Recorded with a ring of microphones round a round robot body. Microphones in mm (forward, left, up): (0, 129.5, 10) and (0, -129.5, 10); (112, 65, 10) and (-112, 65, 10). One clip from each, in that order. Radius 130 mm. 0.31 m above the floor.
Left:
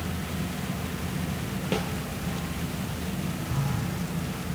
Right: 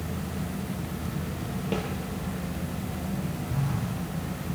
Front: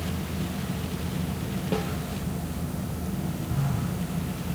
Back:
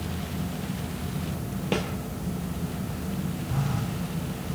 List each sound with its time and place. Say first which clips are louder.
1.7 s a snare drum: left 2 dB, back 2 dB; 160° left, 4 m
3.5 s a phone buzzing: left 1 dB, even; 170° left, 9 m